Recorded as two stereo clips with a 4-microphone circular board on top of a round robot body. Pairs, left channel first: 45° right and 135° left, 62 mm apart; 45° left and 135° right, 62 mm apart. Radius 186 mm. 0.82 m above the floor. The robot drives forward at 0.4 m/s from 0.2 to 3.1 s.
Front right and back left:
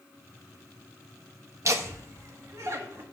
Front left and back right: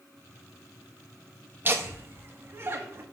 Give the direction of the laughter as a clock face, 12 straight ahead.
6 o'clock.